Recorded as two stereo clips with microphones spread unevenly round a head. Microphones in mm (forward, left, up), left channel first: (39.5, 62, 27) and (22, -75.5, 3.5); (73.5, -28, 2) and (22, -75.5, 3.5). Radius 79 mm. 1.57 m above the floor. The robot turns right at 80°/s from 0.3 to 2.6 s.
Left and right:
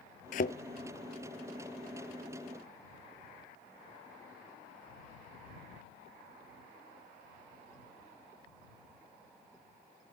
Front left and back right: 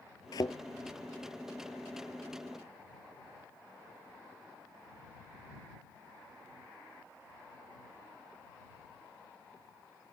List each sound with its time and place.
0.3 s a thud: 80° left; by 0.6 s 100° left